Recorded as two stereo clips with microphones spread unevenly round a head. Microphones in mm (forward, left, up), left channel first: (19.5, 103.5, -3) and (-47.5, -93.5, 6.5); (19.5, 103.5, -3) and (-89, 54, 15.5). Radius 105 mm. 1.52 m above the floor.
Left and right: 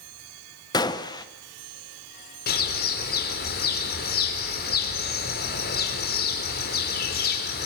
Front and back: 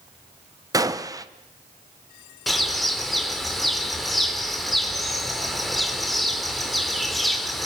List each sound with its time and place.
0.7 s a gunshot: 145° left, 1.2 m
2.5 s a bird: 115° left, 3.5 m